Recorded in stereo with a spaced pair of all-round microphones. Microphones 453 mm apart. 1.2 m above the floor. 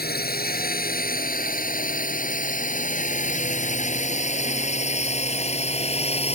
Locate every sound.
0.0 s a drone: 20° left (ahead or behind); by 6.3 s 15° left (ahead or behind)